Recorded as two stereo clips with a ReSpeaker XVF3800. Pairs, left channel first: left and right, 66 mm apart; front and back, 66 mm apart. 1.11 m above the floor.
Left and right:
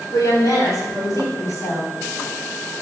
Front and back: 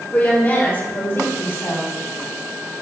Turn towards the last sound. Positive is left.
turn(degrees=50)